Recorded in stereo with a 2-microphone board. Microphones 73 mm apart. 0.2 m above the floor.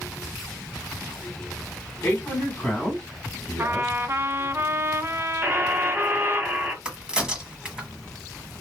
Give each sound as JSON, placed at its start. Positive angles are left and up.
{"t": 2.0, "sound": "a man speaking", "side_deg": 25, "distance_m": 1.9}
{"t": 3.6, "sound": "a trumpet", "side_deg": -35, "distance_m": 0.5}
{"t": 5.4, "sound": "a buzzer", "side_deg": -25, "distance_m": 1.4}
{"t": 6.8, "sound": "a crack", "side_deg": -10, "distance_m": 1.3}